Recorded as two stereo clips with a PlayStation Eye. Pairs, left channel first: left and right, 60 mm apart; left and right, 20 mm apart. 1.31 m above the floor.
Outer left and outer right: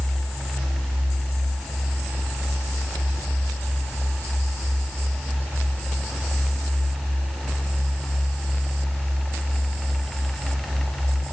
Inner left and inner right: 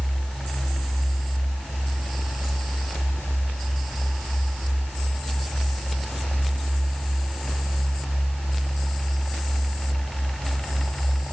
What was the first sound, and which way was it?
Only background noise.